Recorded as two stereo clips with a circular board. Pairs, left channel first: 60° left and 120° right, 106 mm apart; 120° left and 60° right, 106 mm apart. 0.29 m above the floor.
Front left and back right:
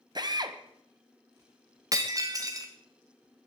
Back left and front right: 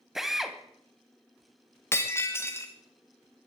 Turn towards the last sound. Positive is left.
turn(degrees=-175)